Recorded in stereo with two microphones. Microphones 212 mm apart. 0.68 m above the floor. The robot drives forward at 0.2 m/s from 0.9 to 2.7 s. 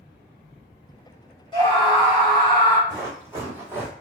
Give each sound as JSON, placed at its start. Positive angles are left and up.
{"t": 1.5, "sound": "a scream", "side_deg": 20, "distance_m": 1.0}
{"t": 2.9, "sound": "running footsteps", "side_deg": -10, "distance_m": 1.7}